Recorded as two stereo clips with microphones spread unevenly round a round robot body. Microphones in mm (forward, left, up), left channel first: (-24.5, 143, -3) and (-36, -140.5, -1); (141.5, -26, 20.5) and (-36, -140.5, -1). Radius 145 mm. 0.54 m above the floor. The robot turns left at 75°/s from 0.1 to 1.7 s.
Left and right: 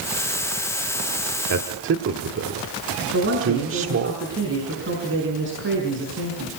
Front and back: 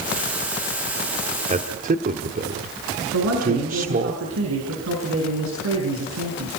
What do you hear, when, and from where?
1.5 s a man speaking: 105° right, 1.4 m; by 4.1 s 120° right, 1.4 m
3.1 s a man speaking: 140° right, 5.5 m